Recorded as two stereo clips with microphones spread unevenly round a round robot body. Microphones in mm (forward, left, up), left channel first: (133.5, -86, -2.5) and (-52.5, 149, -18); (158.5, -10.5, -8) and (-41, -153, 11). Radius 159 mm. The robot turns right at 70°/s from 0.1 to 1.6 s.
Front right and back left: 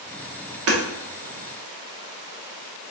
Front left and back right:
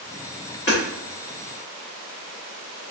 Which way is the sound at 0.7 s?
90° left.